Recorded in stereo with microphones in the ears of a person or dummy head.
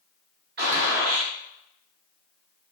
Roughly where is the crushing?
No crushing in this recording.